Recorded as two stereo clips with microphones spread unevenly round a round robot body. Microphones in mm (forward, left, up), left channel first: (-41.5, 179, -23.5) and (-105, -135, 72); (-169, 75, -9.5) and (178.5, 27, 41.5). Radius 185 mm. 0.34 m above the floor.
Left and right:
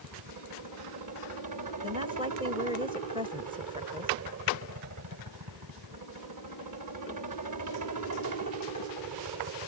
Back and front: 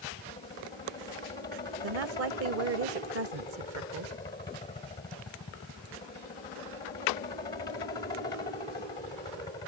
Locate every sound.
0.0 s a helicopter: 125° right
1.8 s a woman speaking: 5° right